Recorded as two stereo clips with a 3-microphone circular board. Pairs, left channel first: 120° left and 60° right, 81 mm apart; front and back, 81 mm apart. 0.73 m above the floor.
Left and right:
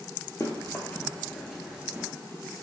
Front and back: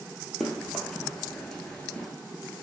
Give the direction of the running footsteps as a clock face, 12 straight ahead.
9 o'clock.